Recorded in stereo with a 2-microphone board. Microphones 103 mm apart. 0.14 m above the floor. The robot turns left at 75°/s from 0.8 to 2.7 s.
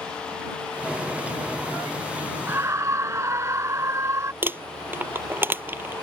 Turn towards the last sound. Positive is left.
turn(degrees=-25)  # may be behind; listen again after turning